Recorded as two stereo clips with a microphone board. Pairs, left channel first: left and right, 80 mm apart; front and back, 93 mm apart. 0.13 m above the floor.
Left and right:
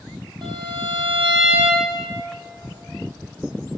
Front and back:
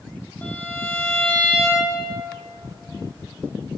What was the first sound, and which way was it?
A violin, 75° right.